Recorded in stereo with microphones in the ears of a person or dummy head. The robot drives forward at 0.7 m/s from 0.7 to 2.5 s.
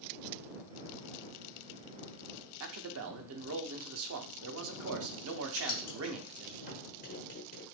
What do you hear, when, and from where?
2.6 s a man speaking: 75° right (ahead or behind), 0.6 m
5.5 s writing: 50° left (ahead or behind), 1.0 m